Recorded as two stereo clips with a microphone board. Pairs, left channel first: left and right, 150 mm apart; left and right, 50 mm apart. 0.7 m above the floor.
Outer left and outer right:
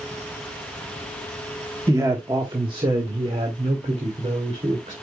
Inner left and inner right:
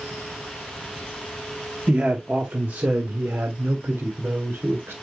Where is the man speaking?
20° right (ahead or behind), 1.1 m; by 4.9 s 45° right (ahead or behind), 2.5 m.